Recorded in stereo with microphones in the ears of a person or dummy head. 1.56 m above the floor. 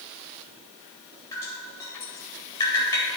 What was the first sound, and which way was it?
Dripping, 15° left (ahead or behind).